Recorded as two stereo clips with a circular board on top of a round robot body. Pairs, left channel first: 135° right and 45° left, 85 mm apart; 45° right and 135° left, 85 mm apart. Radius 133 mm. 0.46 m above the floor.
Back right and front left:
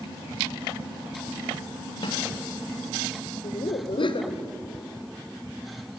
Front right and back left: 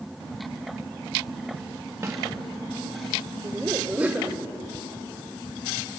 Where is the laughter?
150° right, 2 m.